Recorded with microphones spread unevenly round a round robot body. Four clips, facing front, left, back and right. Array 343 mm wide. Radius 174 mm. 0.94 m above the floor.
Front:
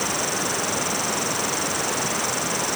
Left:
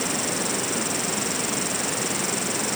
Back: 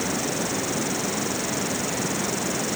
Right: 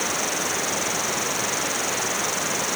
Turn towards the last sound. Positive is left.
turn(degrees=145)